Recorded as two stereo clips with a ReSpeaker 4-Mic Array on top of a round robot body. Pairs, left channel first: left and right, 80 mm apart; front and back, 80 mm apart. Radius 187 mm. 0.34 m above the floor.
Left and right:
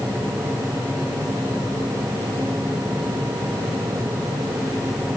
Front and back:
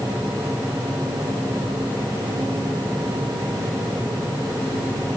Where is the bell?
I don't hear a bell.